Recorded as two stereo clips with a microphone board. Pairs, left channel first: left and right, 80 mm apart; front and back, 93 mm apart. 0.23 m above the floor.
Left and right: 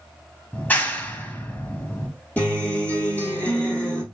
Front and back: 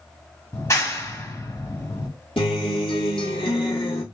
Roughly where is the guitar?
Ahead.